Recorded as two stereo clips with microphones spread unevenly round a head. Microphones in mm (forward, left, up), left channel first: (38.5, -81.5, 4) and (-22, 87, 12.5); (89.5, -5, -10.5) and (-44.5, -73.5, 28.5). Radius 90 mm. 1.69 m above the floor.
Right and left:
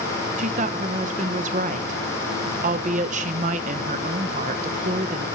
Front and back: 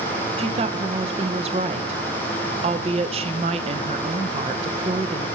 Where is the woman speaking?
160° left, 1.1 m.